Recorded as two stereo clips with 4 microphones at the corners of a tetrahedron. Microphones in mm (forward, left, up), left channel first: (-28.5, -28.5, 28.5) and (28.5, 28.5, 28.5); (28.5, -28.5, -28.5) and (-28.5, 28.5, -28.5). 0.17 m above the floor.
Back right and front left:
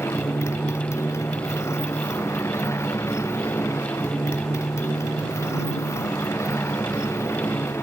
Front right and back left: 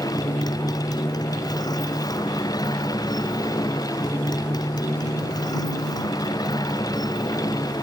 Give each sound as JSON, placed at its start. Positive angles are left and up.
{"t": 0.0, "sound": "a motorcycle", "azimuth_deg": -80}